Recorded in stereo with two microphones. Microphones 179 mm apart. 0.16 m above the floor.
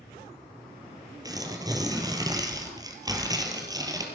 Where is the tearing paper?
20° right (ahead or behind), 3.5 m.